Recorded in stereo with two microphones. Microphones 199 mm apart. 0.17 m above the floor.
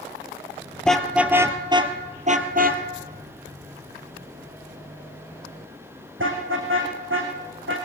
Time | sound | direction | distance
0.8 | a car horn | 5° left (ahead or behind) | 2 m